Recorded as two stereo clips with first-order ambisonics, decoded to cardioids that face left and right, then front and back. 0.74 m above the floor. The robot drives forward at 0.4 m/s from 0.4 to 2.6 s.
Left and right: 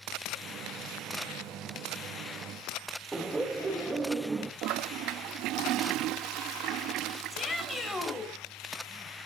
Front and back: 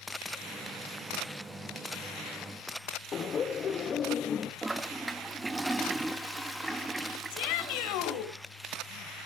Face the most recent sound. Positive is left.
turn(degrees=10)